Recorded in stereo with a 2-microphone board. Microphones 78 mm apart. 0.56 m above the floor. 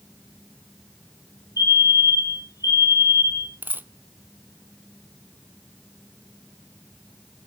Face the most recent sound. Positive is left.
turn(degrees=-25)  # may be behind; listen again after turning